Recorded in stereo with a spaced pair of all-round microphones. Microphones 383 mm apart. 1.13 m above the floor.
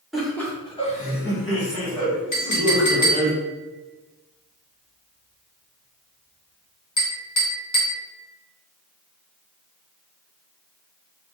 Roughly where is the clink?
Left.